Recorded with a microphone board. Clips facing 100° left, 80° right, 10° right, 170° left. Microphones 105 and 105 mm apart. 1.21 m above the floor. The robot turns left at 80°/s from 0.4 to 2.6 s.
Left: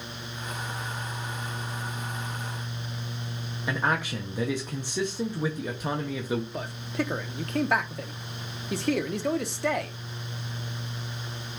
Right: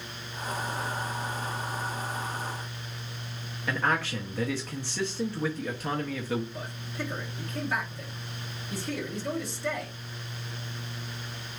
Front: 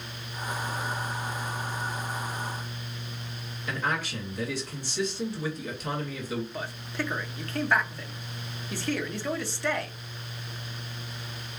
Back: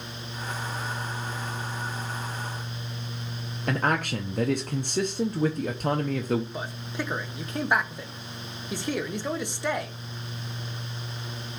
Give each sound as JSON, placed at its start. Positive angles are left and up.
{"t": 3.7, "sound": "a man speaking", "azimuth_deg": 170, "distance_m": 0.5}
{"t": 6.5, "sound": "a man speaking", "azimuth_deg": 100, "distance_m": 0.7}